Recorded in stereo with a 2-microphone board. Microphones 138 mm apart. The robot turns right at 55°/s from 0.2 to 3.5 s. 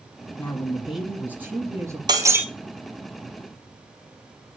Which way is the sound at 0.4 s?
10° left (ahead or behind).